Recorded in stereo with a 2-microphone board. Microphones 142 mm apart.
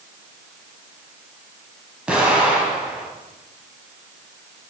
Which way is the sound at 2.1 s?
5° right (ahead or behind).